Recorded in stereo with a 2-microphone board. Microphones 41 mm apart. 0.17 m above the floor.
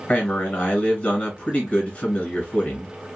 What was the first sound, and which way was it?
A man speaking, 25° left (ahead or behind).